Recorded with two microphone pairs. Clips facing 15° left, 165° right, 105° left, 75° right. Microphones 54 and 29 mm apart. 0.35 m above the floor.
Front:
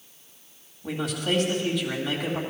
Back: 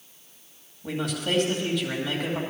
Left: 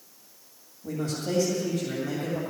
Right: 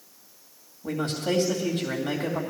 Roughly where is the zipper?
No zipper in this recording.